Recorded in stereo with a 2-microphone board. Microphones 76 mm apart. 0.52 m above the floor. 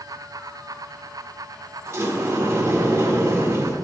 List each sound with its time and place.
1.9 s a sliding door: 40° right (ahead or behind), 1.7 m